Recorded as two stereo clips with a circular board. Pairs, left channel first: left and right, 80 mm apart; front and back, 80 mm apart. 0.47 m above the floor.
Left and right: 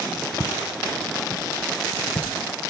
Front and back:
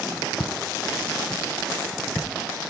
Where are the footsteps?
10° right, 1.1 m; by 2.3 s 60° left, 1.8 m.